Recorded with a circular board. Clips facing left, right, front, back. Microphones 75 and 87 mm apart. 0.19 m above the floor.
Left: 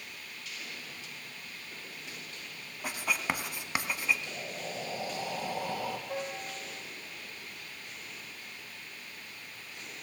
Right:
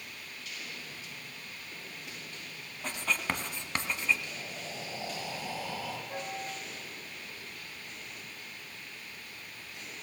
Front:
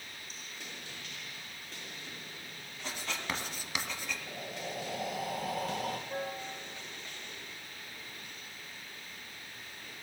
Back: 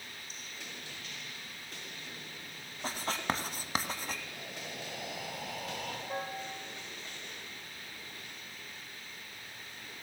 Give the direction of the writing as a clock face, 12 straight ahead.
7 o'clock.